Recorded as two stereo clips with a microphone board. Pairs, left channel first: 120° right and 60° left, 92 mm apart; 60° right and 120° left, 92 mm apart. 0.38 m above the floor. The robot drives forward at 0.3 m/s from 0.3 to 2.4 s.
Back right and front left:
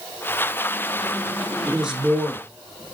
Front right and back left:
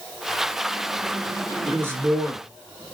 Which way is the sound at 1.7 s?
130° left.